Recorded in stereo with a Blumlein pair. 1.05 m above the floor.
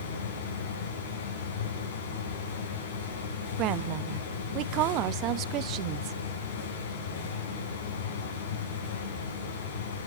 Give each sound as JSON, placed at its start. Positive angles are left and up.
{"t": 0.0, "sound": "a fan", "azimuth_deg": 60, "distance_m": 4.5}
{"t": 3.6, "sound": "a woman speaking", "azimuth_deg": -40, "distance_m": 0.8}